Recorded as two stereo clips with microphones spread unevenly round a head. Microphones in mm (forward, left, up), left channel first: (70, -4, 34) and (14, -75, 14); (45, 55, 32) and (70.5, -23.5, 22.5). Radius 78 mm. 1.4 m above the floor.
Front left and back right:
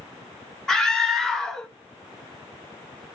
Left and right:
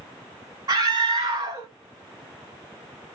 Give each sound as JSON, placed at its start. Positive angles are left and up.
{"t": 0.7, "sound": "a scream", "azimuth_deg": -30, "distance_m": 2.5}